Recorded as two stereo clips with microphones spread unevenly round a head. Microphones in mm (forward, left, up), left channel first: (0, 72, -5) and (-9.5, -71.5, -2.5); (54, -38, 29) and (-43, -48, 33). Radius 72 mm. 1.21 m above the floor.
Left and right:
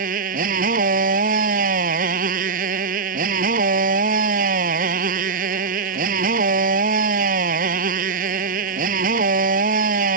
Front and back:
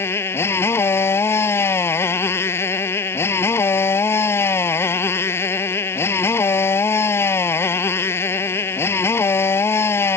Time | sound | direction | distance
0.0 | a motorcycle | 60° right | ?